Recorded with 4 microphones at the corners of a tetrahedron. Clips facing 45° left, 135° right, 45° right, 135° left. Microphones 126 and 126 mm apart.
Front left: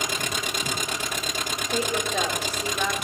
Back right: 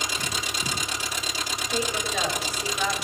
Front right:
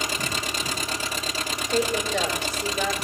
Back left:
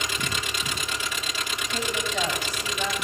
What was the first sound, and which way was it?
An engine running, 10° left.